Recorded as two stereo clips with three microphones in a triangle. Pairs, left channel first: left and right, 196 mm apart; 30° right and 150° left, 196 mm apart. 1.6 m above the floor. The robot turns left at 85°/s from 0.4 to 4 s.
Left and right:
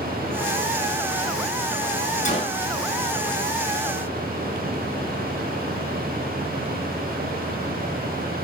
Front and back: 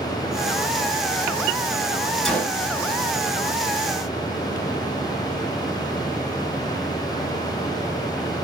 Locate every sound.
2.2 s a gunshot: 60° left, 1.5 m; by 2.6 s 30° left, 1.5 m